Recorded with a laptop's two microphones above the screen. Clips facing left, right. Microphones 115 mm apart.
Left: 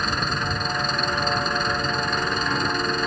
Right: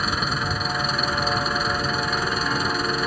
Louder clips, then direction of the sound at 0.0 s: Even; 5° right (ahead or behind).